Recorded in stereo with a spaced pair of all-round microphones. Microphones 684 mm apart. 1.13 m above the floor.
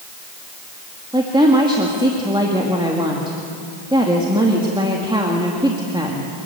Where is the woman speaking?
5° right (ahead or behind), 2 m.